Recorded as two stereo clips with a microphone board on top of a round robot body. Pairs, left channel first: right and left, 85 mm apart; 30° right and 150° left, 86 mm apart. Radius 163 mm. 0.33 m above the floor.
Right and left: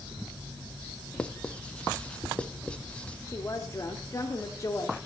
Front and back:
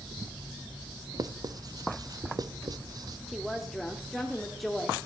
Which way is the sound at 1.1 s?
170° right.